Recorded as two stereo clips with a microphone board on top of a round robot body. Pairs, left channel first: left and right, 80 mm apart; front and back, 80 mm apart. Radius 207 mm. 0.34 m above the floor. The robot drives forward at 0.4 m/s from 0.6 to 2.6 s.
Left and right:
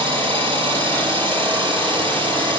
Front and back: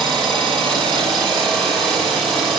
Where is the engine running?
85° right, 9.5 m; by 2.6 s 90° right, 9.5 m.